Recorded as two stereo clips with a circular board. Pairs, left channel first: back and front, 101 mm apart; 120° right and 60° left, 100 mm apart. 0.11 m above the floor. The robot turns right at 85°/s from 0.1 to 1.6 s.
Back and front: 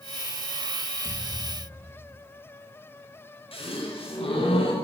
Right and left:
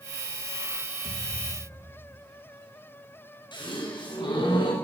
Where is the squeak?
I don't hear a squeak.